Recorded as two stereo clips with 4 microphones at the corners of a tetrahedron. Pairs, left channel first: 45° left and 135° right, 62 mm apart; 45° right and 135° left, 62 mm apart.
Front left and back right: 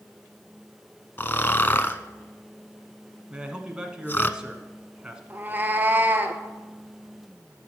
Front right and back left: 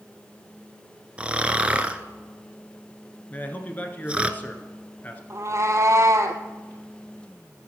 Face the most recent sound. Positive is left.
turn(degrees=165)